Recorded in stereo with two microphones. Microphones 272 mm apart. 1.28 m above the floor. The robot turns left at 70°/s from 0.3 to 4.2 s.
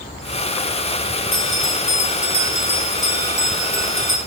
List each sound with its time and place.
1.3 s a bell: 105° left, 1.8 m; by 4.2 s 95° right, 1.8 m